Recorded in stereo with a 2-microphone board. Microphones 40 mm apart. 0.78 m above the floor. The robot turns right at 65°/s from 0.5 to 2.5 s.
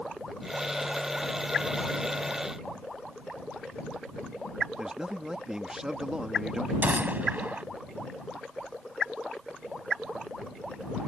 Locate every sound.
4.8 s a man speaking: 15° right (ahead or behind)
6.8 s a gunshot: 45° right (ahead or behind)